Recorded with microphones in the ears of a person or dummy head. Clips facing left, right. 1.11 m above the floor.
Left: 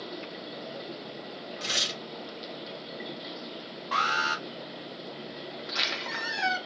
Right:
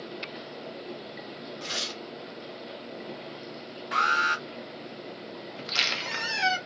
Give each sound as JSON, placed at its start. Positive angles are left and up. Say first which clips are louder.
{"t": 1.6, "sound": "tearing paper", "louder": "even", "side_deg": 30, "distance_m": 0.8}
{"t": 3.9, "sound": "an alarm", "louder": "right 1 dB", "side_deg": -20, "distance_m": 1.2}
{"t": 5.6, "sound": "a squeak", "louder": "even", "side_deg": -40, "distance_m": 0.9}